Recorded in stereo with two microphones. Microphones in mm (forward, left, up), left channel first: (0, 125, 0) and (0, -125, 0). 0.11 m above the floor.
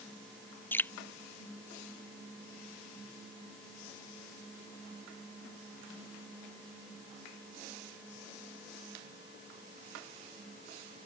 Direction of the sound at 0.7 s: 10° left (ahead or behind).